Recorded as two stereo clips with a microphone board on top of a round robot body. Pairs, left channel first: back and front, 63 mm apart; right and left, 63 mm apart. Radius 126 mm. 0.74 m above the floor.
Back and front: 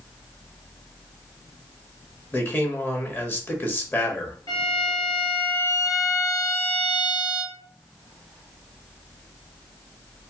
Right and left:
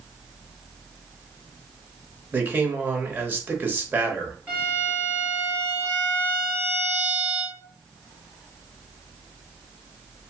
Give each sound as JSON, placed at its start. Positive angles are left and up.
{"t": 2.3, "sound": "a man speaking", "azimuth_deg": 140, "distance_m": 1.4}
{"t": 4.5, "sound": "a violin", "azimuth_deg": 155, "distance_m": 1.0}